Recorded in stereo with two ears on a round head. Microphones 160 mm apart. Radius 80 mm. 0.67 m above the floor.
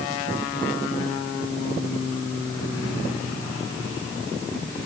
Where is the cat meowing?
No cat meowing in this recording.